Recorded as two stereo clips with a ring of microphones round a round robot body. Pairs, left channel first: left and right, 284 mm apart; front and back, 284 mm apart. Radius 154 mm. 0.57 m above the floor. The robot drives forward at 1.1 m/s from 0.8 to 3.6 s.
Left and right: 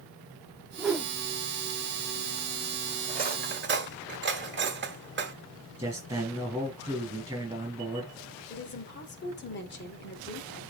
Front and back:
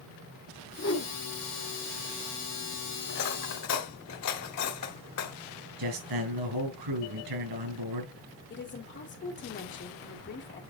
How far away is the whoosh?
About 1.5 m.